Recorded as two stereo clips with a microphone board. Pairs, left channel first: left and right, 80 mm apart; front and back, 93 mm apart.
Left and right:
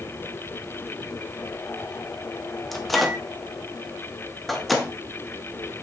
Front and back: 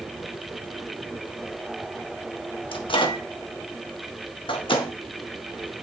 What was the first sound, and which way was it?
A microwave, straight ahead.